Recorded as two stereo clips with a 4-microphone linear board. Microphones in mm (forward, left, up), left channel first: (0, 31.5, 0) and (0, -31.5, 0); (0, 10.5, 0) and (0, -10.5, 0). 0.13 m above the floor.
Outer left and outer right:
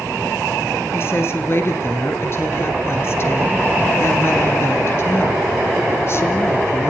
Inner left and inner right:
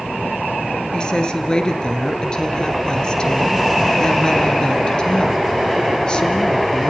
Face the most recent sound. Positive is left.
turn(degrees=45)  # may be behind; listen again after turning